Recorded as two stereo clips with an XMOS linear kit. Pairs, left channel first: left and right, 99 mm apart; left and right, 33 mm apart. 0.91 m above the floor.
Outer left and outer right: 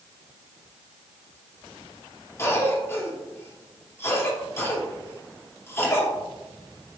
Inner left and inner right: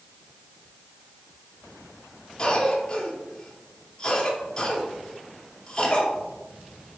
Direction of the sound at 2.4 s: 25° left (ahead or behind).